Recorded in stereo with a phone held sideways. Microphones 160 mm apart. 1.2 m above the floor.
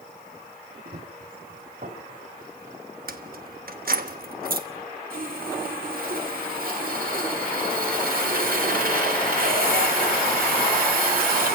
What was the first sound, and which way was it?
Running footsteps, 65° right (ahead or behind).